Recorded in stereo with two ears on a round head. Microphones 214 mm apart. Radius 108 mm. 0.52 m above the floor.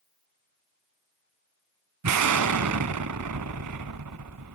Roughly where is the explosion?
Right.